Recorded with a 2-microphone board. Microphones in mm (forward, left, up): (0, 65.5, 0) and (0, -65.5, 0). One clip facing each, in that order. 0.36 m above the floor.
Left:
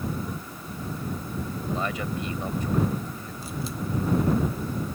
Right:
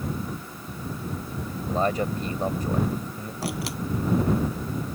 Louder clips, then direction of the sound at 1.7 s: Right 6 dB; 40° right (ahead or behind).